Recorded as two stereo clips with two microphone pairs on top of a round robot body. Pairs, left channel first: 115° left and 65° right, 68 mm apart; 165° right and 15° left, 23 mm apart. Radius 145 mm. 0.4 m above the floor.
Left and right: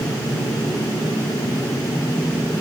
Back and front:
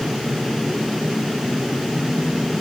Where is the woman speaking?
I don't hear a woman speaking.